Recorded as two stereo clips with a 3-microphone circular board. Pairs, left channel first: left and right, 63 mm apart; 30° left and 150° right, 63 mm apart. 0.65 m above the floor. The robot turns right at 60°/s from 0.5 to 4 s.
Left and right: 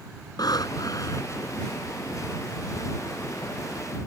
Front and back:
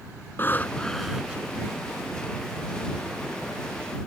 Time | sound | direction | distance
0.4 | breathing | 90° left | ?